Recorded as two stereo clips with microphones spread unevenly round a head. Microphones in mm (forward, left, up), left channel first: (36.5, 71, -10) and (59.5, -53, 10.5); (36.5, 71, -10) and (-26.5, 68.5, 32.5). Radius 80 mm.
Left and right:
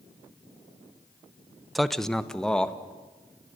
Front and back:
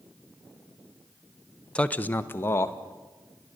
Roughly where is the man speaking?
Ahead.